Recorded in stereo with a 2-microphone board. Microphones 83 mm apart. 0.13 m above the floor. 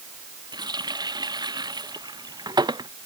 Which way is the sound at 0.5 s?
60° right (ahead or behind).